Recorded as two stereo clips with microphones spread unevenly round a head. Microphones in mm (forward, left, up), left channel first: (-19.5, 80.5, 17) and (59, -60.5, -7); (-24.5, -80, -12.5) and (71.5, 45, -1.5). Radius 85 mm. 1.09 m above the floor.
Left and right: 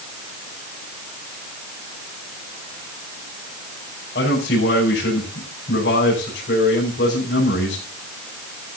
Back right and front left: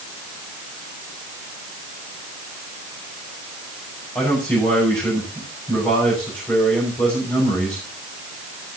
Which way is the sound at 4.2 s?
155° left.